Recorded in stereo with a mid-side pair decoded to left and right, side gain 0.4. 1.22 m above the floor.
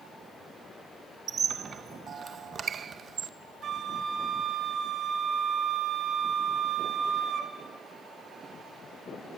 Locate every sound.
1.3 s a squeak: 55° right, 0.7 m
3.6 s a flute: 65° right, 3 m